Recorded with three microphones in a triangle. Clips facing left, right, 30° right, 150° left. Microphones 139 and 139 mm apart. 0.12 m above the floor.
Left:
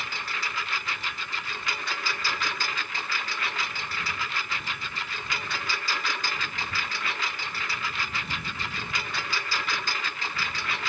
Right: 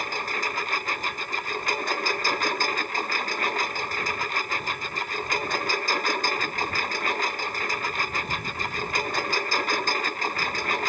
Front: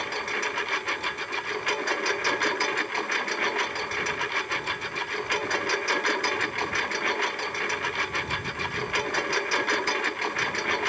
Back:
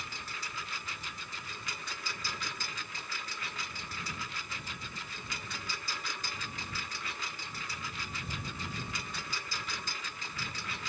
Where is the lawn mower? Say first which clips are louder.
Right 6 dB, front 14 dB; 45° right.